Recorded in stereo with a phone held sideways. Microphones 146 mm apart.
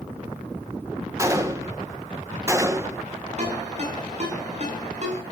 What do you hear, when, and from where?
1.2 s a gunshot: 20° right (ahead or behind), 1.7 m
3.4 s a ringtone: 50° right (ahead or behind), 7.5 m